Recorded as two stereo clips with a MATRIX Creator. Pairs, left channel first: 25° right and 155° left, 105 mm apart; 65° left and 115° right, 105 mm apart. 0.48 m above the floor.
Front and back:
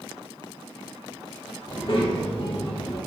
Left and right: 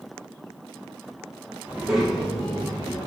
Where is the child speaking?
40° right, 0.7 m; by 3.0 s 10° right, 1.5 m.